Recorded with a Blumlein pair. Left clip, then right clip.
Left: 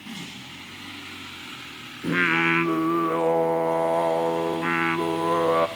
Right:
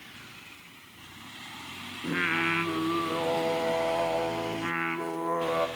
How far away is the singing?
About 0.5 m.